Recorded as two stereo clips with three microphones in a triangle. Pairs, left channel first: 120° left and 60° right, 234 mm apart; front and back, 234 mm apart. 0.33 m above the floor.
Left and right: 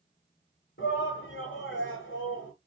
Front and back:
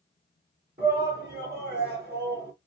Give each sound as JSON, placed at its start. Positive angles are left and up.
{"t": 0.8, "sound": "a shout", "azimuth_deg": 145, "distance_m": 2.5}